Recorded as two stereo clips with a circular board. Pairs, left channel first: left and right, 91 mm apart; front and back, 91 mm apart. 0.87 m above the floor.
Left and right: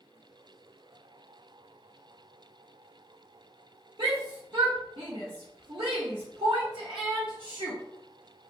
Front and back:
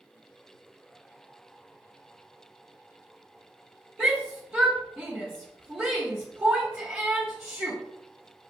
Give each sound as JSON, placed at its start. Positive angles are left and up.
{"t": 4.0, "sound": "a shout", "azimuth_deg": -100, "distance_m": 0.9}